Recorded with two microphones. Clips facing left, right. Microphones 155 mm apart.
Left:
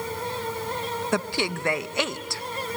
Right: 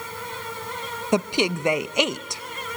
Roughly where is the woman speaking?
Centre.